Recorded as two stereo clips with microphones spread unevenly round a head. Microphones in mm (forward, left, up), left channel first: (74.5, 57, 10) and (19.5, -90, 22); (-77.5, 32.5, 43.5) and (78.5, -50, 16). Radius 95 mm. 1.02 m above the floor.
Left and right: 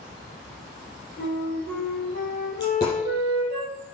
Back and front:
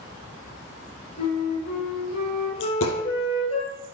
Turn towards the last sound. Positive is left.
turn(degrees=145)